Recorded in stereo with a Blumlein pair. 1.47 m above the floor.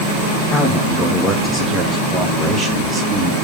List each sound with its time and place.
0.5 s a man speaking: 20° left, 1.7 m; by 3.4 s 15° right, 2.5 m